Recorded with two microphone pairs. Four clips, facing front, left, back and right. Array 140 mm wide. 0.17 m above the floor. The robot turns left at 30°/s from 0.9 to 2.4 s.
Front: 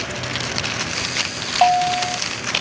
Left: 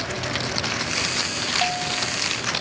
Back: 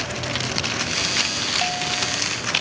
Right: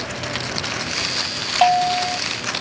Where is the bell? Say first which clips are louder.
Right 13 dB, front 14 dB; 35° right; by 2.2 s 50° right.